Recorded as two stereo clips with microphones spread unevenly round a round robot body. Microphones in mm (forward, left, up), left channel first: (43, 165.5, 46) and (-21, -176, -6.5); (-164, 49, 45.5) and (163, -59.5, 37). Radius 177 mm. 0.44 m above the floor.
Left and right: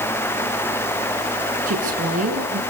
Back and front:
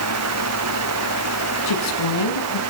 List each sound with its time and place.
1.7 s a woman speaking: 165° right, 6 m